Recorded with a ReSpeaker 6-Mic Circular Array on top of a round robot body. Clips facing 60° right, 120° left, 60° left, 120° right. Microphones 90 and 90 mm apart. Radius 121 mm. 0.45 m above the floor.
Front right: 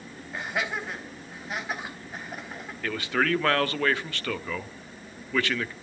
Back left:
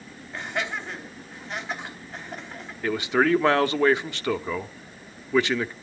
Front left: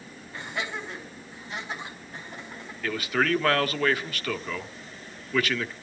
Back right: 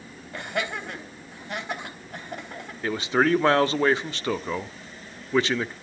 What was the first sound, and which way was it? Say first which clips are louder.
Laughter: even, back right 4 dB; 145° right.